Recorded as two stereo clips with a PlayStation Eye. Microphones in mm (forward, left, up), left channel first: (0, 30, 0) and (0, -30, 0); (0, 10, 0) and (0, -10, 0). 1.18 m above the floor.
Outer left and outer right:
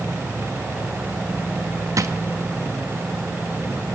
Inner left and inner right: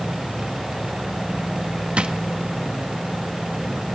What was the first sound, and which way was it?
A drawer, 60° right (ahead or behind).